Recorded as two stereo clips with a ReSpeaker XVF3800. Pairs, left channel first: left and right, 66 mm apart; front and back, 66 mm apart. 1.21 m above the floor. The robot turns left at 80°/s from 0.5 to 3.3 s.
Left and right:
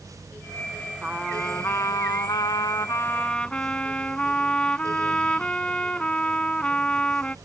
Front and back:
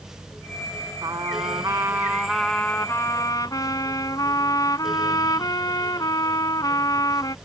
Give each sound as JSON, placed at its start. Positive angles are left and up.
{"t": 1.0, "sound": "a trumpet", "azimuth_deg": -160}